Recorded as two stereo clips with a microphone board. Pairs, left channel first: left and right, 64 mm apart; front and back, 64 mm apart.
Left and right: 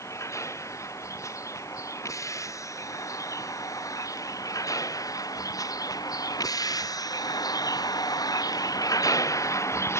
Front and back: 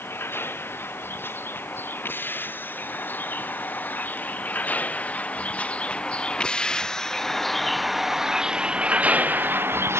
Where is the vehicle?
55° left; by 10.0 s 135° left.